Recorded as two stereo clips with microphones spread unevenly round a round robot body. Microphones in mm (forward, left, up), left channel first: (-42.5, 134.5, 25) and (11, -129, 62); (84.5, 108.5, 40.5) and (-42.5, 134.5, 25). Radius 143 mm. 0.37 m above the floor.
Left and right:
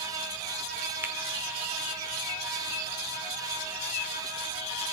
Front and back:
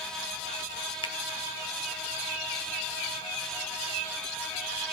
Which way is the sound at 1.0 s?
10° left.